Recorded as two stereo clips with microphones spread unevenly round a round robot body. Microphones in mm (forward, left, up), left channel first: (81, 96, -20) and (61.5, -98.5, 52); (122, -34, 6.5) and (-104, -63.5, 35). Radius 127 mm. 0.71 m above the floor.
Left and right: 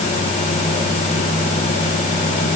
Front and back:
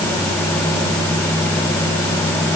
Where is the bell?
I don't hear a bell.